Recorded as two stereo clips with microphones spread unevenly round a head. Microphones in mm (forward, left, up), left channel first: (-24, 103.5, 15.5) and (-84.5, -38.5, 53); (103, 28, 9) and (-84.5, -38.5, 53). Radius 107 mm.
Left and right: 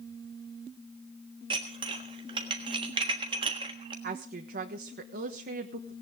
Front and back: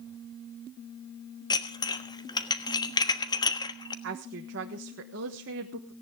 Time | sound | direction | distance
1.5 | dishes clattering | 55° right | 1.2 m
4.0 | a woman speaking | 130° right | 1.3 m